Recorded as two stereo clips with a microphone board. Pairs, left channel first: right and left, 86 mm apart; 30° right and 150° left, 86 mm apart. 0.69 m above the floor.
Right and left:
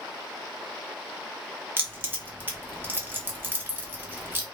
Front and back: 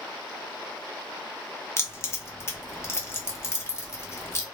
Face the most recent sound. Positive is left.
turn(degrees=25)